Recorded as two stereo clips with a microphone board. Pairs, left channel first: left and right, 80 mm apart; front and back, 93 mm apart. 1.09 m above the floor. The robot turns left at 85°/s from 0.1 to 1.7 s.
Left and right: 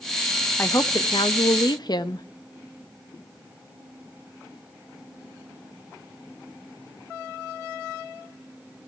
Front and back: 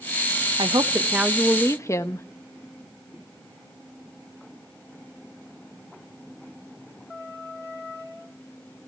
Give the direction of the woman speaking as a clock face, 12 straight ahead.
7 o'clock.